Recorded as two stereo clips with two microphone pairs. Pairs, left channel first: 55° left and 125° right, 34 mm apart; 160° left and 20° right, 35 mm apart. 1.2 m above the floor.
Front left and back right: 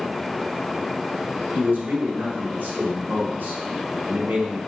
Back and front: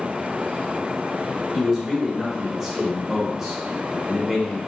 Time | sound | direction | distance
1.5 | a man speaking | 95° right | 4 m